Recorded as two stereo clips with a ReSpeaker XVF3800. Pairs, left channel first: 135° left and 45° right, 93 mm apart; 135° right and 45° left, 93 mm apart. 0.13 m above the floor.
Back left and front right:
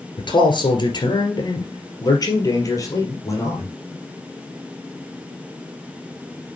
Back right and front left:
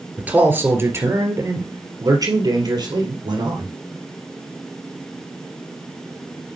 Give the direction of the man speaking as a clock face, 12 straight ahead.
8 o'clock.